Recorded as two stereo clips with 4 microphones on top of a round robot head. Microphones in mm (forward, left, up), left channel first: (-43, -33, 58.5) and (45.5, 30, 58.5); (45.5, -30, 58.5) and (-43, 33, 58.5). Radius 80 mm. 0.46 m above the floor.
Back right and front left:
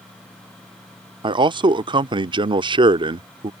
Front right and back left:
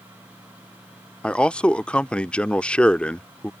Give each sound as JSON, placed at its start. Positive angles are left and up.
{"t": 1.2, "sound": "a man speaking", "azimuth_deg": 40}